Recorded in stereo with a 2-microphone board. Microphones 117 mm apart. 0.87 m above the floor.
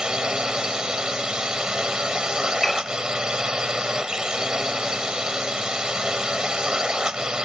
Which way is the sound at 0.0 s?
5° right (ahead or behind).